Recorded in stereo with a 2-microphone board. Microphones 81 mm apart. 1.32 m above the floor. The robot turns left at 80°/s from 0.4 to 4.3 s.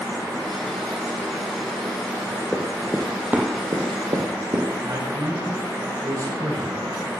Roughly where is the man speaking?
Right.